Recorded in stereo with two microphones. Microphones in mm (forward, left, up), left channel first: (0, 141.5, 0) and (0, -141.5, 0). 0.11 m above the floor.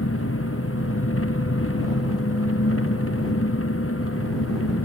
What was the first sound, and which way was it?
An engine running, 50° left (ahead or behind).